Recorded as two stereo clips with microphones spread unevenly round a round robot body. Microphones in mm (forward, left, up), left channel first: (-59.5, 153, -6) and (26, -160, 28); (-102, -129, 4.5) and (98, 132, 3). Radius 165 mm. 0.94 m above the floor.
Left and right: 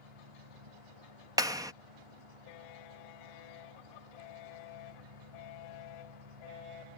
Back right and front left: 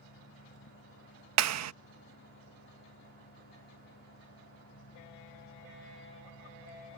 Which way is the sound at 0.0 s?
65° right.